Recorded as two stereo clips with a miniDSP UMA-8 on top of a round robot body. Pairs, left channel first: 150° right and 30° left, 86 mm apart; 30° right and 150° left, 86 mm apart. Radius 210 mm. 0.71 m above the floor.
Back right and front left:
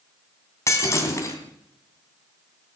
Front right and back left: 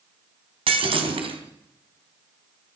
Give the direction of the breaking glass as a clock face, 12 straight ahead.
7 o'clock.